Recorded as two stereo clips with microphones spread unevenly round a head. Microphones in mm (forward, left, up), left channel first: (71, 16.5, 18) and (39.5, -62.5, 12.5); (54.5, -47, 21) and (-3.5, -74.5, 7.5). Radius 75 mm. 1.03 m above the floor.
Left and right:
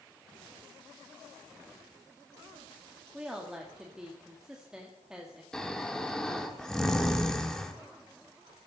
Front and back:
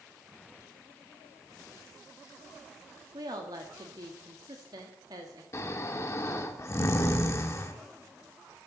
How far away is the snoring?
About 1.3 m.